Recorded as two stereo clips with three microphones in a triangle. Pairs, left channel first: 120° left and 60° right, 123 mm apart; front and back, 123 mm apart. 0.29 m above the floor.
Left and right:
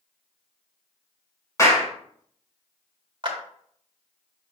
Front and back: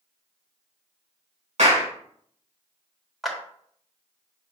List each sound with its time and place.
1.6 s a clap: 175° right, 2.5 m
3.2 s a clap: 90° right, 1.7 m